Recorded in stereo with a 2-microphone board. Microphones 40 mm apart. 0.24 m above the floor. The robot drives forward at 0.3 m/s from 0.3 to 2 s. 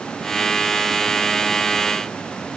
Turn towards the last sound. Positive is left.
No sound to turn to.